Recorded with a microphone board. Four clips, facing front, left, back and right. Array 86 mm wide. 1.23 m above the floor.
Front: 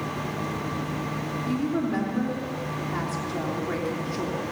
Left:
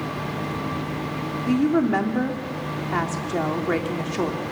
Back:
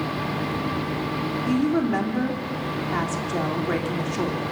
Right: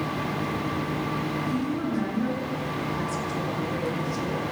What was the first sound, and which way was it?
A woman speaking, 110° left.